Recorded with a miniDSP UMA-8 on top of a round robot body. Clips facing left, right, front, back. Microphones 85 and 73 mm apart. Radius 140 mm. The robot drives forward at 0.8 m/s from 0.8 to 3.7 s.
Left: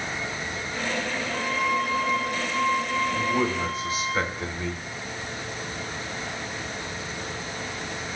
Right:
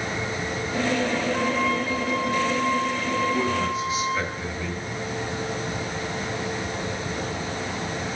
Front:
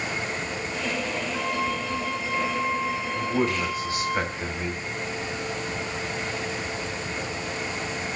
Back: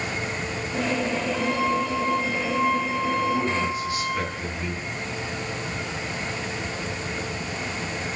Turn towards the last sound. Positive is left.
turn(degrees=50)